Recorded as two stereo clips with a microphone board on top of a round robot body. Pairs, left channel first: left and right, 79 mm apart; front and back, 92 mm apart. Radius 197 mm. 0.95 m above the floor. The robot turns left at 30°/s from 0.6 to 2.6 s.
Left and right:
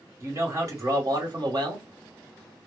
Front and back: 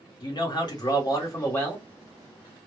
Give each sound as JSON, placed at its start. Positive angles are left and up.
{"t": 0.2, "sound": "a man speaking", "azimuth_deg": -35, "distance_m": 1.6}